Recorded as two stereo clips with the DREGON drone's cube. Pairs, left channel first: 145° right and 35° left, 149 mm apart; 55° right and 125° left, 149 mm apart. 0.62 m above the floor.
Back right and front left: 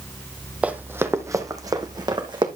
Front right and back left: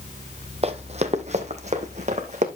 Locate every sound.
0.6 s running footsteps: 110° left, 0.8 m; by 2.5 s 90° left, 1.6 m